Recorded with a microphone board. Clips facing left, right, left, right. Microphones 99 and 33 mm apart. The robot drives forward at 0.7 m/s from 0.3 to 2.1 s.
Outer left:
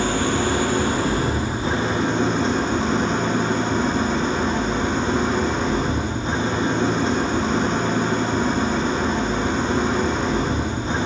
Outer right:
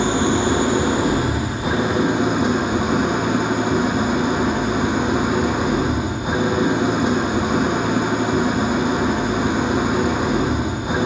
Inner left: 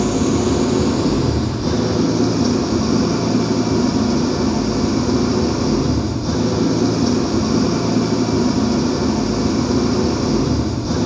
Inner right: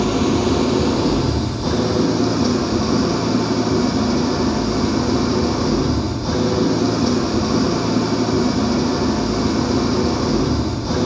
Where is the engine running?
20° right (ahead or behind), 3 m; by 11.1 s 15° right (ahead or behind), 4 m.